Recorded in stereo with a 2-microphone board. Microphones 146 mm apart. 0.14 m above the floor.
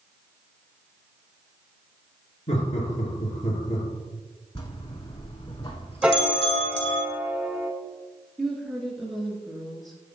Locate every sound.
2.5 s laughter: 50° left (ahead or behind), 2.5 m
4.5 s a bell: 35° left (ahead or behind), 1.5 m
6.0 s a piano: 5° right (ahead or behind), 0.8 m
8.4 s a woman speaking: centre (ahead or behind), 1.6 m